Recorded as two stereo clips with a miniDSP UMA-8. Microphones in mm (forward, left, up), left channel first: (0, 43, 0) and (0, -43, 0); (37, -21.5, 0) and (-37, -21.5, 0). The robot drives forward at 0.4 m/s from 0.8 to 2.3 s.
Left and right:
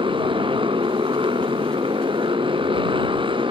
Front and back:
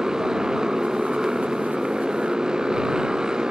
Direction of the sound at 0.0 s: 95° right.